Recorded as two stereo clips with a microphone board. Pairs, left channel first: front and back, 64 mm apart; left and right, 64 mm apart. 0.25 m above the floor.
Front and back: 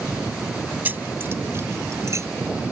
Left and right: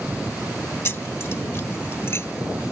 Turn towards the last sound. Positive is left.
turn(degrees=140)